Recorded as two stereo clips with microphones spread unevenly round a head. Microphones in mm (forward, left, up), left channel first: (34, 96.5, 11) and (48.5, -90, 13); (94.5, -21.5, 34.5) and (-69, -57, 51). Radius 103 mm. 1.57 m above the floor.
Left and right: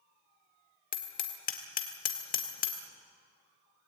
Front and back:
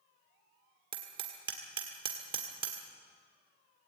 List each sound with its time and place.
0.9 s hammering: 135° left, 1.7 m